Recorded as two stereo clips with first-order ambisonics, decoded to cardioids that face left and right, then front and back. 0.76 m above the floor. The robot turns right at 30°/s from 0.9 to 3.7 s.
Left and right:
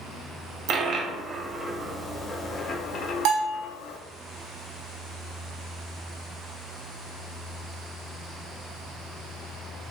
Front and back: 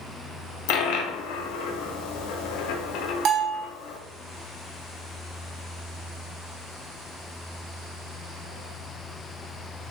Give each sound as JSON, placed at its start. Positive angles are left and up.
{"t": 0.7, "sound": "a dropped coin", "azimuth_deg": -35, "distance_m": 0.6}
{"t": 3.2, "sound": "a bell", "azimuth_deg": -125, "distance_m": 0.9}